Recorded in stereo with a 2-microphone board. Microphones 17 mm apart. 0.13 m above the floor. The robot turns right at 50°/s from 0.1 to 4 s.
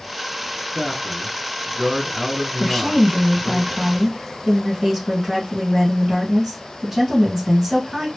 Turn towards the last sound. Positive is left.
turn(degrees=-25)  # may be behind; listen again after turning